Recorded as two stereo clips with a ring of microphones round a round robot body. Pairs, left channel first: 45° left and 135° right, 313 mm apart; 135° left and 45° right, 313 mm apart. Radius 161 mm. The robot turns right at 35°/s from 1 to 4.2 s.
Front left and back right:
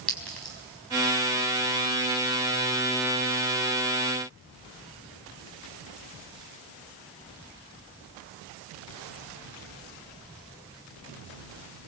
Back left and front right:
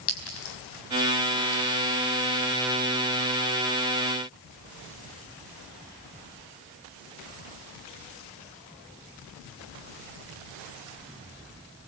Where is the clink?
130° left, 4.5 m.